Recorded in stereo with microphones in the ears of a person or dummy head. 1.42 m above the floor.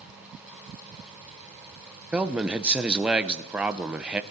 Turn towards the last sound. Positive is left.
turn(degrees=-5)  # may be behind; listen again after turning